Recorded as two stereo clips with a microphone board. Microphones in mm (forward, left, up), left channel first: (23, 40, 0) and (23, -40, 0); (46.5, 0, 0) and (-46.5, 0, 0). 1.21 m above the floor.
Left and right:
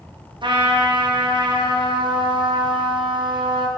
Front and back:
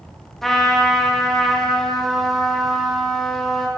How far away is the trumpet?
About 0.8 m.